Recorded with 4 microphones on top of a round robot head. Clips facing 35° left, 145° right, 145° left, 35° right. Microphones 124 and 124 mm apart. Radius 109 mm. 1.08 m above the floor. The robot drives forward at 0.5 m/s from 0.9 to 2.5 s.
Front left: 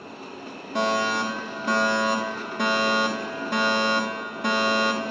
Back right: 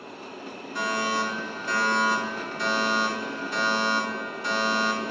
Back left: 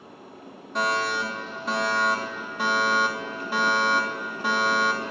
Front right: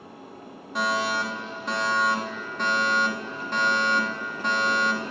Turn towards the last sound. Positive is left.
turn(degrees=65)